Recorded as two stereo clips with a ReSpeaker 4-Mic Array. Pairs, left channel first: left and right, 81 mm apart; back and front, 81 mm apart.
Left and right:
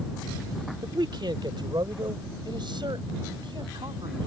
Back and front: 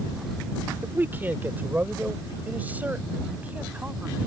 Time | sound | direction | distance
0.8 | a man speaking | 65° right | ?